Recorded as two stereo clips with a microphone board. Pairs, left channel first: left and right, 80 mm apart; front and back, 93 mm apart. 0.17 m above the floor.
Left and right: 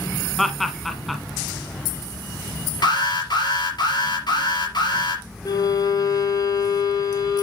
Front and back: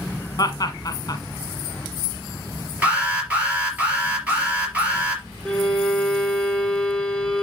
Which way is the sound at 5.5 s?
80° left.